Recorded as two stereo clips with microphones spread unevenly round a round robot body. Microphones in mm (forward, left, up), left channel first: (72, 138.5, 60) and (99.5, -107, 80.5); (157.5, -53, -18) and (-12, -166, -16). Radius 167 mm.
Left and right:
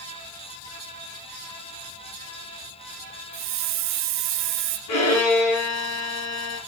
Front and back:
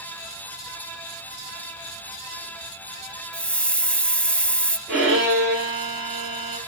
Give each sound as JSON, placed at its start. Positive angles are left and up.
{"t": 3.3, "sound": "a hiss", "azimuth_deg": -50, "distance_m": 0.6}
{"t": 4.9, "sound": "a violin", "azimuth_deg": 125, "distance_m": 4.5}